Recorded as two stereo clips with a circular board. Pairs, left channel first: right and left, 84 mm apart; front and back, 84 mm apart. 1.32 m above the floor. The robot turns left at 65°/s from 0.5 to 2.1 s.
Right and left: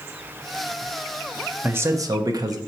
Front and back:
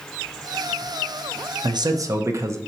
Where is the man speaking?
160° left, 0.6 m; by 2.6 s 130° left, 0.6 m.